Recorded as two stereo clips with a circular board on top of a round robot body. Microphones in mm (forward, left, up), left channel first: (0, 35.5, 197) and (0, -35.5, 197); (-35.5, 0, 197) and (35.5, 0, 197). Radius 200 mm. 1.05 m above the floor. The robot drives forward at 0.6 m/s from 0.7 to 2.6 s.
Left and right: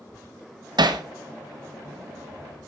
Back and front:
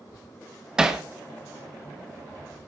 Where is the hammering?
80° right, 1.7 m; by 1.0 s 85° right, 1.7 m.